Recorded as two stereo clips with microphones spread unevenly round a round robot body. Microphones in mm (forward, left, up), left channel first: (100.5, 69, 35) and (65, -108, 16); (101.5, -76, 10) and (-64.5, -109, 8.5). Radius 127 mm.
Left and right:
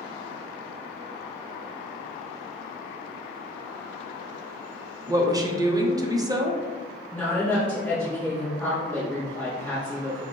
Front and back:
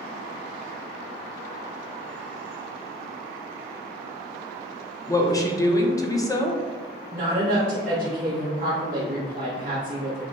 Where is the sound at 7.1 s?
165° left, 0.8 m.